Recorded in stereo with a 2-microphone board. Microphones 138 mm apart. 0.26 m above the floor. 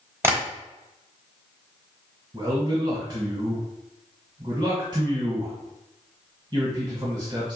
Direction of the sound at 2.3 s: 35° right (ahead or behind).